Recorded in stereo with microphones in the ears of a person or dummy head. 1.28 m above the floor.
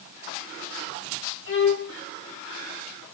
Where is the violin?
60° left (ahead or behind), 3 m.